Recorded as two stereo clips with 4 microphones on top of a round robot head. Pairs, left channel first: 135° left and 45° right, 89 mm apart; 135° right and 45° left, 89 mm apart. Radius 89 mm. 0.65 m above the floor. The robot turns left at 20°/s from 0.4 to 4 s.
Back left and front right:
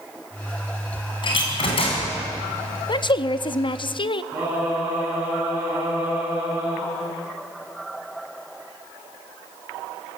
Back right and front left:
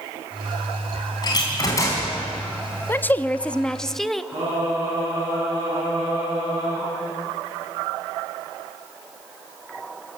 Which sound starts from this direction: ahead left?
Singing, at 4.3 s.